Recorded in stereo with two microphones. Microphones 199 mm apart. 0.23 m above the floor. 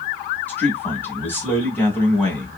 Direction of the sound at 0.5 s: 10° left (ahead or behind).